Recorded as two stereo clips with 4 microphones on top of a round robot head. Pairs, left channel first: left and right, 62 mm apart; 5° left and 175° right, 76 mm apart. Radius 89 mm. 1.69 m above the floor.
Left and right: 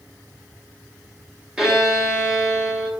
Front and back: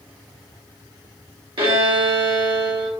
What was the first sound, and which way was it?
A violin, 170° right.